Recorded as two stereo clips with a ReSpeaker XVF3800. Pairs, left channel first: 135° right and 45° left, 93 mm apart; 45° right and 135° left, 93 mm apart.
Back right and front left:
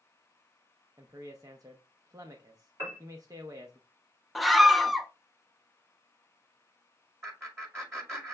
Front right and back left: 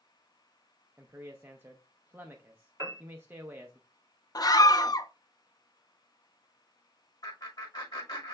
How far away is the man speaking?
About 0.5 m.